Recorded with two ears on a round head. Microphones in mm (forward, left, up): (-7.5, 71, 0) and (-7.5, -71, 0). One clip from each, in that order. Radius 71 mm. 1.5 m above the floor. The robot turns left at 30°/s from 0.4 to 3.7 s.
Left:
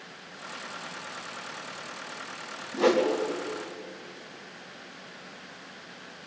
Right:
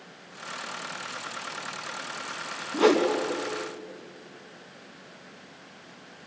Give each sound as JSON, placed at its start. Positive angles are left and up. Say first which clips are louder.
{"t": 2.7, "sound": "a whoosh", "louder": "right 2 dB", "side_deg": -45, "distance_m": 3.5}